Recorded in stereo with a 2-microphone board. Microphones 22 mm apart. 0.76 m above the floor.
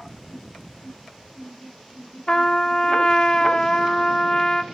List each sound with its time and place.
2.3 s a trumpet: 35° left (ahead or behind), 0.7 m